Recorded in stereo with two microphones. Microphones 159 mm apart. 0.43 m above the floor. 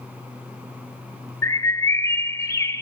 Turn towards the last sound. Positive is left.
turn(degrees=20)  # may be behind; listen again after turning